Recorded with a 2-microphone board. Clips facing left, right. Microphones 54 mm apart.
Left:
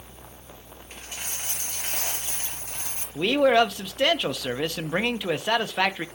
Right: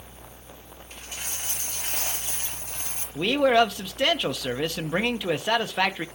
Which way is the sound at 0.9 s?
35° left (ahead or behind).